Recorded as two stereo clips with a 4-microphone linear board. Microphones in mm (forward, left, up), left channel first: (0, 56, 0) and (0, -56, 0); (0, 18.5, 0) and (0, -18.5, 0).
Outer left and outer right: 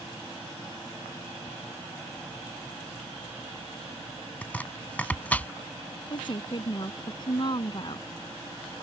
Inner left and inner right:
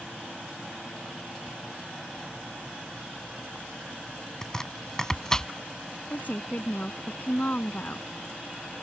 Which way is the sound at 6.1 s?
45° left (ahead or behind).